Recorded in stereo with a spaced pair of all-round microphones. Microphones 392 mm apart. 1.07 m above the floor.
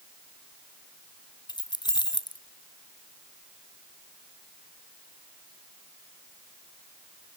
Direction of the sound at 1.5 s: 10° left (ahead or behind).